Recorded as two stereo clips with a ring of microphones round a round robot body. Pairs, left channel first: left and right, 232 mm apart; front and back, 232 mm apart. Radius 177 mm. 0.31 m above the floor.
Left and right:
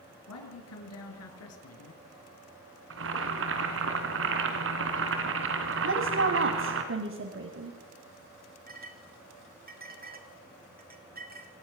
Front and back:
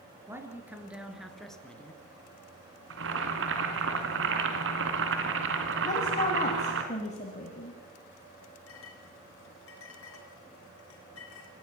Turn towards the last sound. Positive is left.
turn(degrees=-40)